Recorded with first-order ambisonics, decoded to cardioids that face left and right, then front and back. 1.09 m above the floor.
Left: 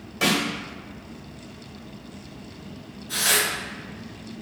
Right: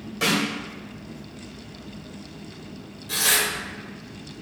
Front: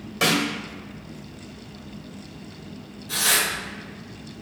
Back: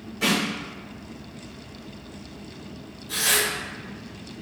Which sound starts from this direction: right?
Tearing paper, at 3.1 s.